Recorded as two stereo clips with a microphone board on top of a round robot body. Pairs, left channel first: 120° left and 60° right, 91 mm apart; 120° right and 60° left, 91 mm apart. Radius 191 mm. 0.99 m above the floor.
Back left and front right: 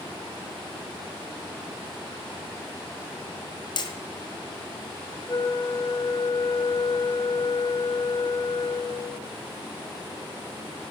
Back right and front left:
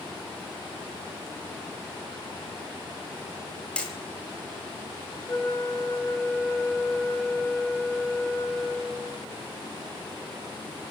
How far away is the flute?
About 2 m.